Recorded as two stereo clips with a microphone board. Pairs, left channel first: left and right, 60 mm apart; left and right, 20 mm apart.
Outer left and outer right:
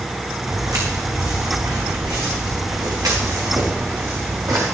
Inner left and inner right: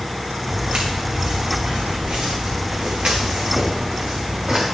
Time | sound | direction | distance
0.5 | footsteps | 70° right (ahead or behind) | 3.5 m